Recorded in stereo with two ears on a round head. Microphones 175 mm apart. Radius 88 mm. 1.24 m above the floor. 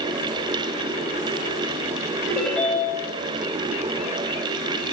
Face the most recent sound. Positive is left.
turn(degrees=5)  # may be behind; listen again after turning